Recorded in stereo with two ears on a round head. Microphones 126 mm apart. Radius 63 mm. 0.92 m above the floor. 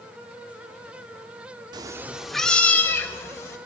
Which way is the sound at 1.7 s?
30° right (ahead or behind).